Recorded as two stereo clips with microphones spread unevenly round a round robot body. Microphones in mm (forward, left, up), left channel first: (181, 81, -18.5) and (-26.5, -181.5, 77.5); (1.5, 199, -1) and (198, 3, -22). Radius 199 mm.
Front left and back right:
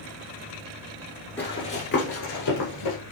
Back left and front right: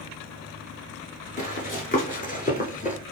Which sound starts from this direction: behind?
Running footsteps, at 1.4 s.